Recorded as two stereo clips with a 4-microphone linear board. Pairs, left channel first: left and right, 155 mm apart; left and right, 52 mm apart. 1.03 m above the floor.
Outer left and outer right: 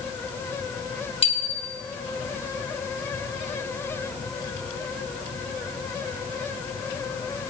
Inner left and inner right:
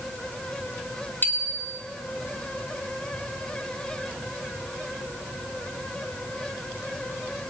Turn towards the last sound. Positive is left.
turn(degrees=40)  # may be behind; listen again after turning